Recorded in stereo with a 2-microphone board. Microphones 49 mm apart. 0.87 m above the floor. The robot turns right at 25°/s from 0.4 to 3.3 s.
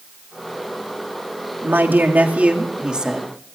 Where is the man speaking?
50° right, 1.9 m; by 3.3 s 10° right, 1.9 m.